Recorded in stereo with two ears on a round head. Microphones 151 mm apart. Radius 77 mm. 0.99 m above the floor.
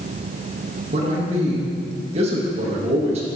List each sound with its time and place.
0.9 s a man speaking: 35° right (ahead or behind), 1.5 m